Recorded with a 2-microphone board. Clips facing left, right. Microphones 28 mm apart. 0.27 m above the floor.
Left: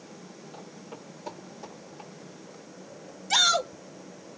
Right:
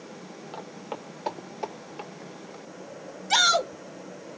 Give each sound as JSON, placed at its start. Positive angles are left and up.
{"t": 0.5, "sound": "footsteps", "side_deg": -55, "distance_m": 1.6}
{"t": 3.3, "sound": "a shout", "side_deg": -15, "distance_m": 1.4}